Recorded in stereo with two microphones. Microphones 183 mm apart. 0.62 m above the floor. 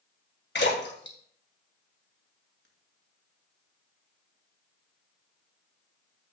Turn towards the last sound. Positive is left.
turn(degrees=75)  # may be behind; listen again after turning